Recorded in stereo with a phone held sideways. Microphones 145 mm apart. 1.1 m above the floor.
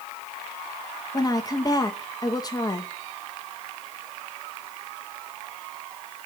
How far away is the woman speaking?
About 1.7 m.